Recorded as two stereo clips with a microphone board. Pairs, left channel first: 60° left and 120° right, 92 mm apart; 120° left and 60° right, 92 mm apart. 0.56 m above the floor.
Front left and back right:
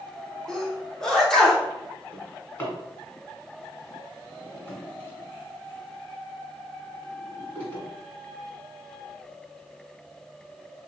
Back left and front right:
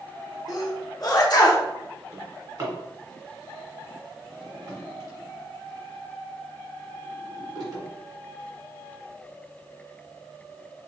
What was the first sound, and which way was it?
A sneeze, 145° left.